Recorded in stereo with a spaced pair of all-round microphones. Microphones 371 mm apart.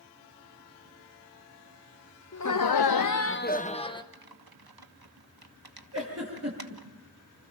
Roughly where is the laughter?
Left.